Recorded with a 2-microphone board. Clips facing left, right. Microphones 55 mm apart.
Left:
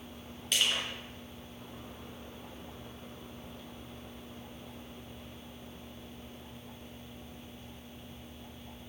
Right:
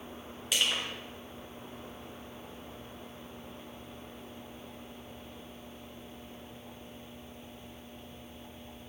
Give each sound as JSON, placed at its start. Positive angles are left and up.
{"t": 0.5, "sound": "crushing", "side_deg": 0, "distance_m": 3.0}